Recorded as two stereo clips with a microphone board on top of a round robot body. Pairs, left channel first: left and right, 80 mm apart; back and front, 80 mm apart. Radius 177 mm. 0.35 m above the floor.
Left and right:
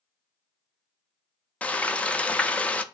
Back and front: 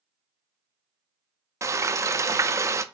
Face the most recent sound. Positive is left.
turn(degrees=25)